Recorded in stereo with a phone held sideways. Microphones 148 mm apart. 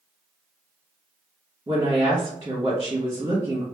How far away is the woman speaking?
About 1.5 m.